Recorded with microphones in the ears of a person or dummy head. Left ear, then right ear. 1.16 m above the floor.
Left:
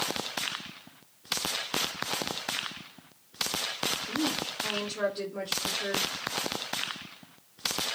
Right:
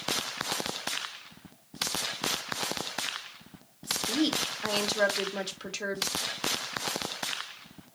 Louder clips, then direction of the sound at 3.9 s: Right 6 dB; 55° right (ahead or behind).